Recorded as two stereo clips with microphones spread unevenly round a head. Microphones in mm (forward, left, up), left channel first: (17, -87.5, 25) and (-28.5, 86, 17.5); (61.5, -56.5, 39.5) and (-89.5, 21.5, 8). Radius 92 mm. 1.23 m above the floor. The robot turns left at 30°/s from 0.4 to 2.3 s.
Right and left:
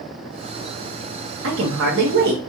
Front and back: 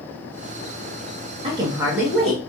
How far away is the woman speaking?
About 1.5 m.